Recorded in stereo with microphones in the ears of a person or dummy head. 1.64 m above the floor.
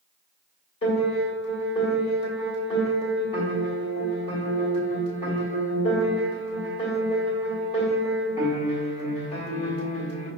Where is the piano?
25° left (ahead or behind), 1.5 m.